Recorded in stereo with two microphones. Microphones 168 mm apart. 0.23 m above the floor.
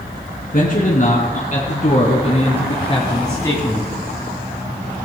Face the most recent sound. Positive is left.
turn(degrees=10)  # may be behind; listen again after turning